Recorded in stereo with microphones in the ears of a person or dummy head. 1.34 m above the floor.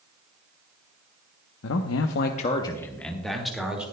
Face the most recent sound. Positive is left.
turn(degrees=-10)  # may be behind; listen again after turning